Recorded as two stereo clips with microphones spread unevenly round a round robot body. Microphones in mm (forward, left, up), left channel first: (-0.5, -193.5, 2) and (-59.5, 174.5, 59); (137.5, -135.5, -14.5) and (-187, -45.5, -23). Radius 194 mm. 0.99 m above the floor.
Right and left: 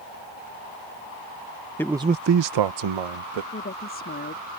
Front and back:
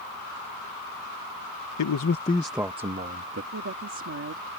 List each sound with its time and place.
1.8 s a man speaking: 10° right; by 3.4 s 105° left
3.5 s a woman speaking: 145° right